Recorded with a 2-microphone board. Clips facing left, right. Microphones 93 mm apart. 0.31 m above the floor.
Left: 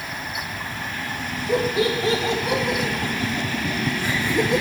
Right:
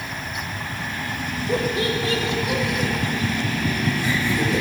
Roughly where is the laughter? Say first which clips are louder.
Left 2 dB; centre.